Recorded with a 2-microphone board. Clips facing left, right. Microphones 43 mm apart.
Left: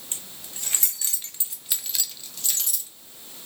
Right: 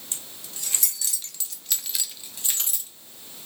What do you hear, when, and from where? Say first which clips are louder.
0.1 s keys jangling: left 1 dB; 35° left (ahead or behind), 1.9 m; by 2.9 s 30° right (ahead or behind), 1.5 m